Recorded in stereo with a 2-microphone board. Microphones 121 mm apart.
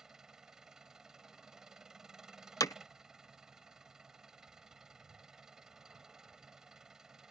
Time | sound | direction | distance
0.0 | an engine running | 5° right (ahead or behind) | ?
2.6 | hammering | 30° left (ahead or behind) | ?